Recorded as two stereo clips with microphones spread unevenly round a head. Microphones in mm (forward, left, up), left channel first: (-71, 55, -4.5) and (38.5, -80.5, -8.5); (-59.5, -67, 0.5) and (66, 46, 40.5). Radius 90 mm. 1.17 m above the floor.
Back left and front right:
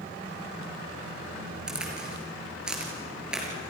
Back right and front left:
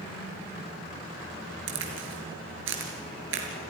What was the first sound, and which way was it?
A crack, 35° left.